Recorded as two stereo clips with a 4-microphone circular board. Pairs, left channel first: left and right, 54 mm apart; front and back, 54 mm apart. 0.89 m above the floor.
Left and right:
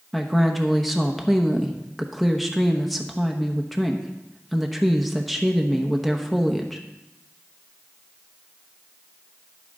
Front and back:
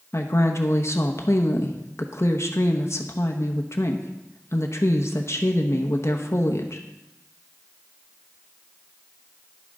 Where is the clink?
No clink in this recording.